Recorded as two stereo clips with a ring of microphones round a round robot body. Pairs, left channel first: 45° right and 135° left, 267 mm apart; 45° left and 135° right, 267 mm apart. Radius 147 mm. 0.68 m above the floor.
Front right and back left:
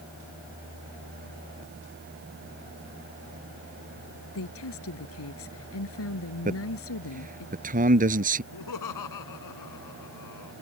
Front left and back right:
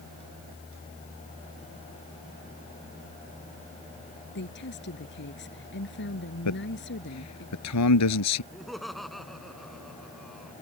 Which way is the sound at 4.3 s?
5° right.